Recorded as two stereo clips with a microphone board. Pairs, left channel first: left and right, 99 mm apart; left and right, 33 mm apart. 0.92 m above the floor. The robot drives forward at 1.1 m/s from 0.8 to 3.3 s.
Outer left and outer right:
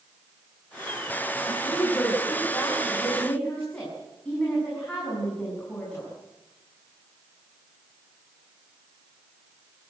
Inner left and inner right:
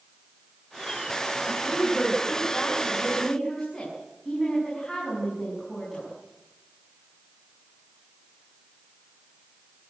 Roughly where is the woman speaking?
Centre.